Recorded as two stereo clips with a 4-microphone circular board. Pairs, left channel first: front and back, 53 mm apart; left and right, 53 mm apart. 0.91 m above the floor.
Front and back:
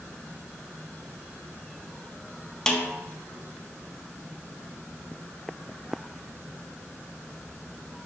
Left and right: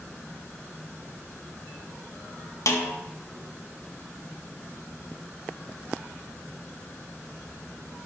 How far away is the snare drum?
About 0.5 m.